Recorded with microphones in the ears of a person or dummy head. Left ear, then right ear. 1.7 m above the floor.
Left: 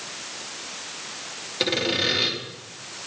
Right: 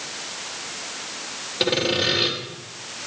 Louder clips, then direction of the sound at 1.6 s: Right 2 dB; 10° left (ahead or behind).